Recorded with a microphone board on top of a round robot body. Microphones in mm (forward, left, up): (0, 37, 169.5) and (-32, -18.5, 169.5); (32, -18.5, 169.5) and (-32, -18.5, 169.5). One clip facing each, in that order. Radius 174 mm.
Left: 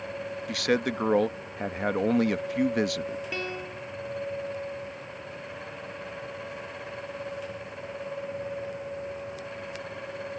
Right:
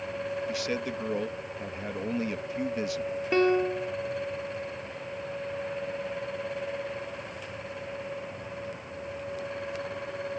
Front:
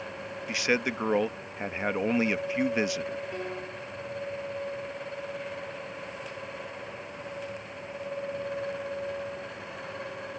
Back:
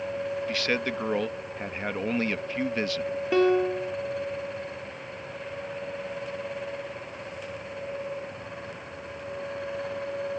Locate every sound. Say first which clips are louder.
0.5 s a man speaking: left 5 dB, front 4 dB; 75° left
3.3 s a piano: right 11 dB, back 14 dB; 175° right